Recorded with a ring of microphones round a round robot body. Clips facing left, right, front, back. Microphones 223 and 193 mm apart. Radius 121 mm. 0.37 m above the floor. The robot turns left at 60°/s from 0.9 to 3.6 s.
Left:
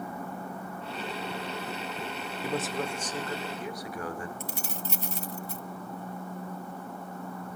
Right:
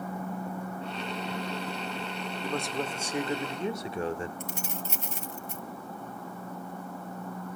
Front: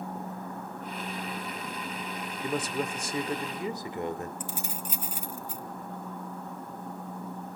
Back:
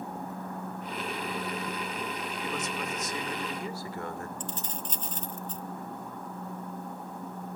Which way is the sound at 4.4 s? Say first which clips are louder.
Even, even; 75° left.